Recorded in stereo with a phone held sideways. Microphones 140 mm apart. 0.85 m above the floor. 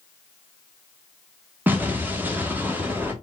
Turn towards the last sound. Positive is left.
turn(degrees=-15)  # may be behind; listen again after turning